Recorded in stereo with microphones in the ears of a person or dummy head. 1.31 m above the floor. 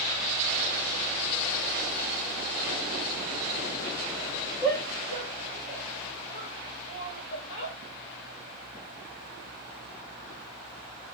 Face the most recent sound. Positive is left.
turn(degrees=35)  # may be behind; listen again after turning